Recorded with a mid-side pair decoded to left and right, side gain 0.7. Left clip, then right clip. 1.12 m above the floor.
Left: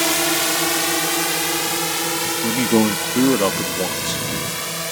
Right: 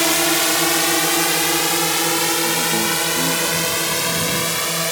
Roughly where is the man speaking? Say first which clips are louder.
Even; ahead left.